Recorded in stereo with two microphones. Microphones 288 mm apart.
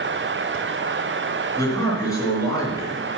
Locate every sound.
1.6 s a man speaking: 10° left (ahead or behind), 3.5 m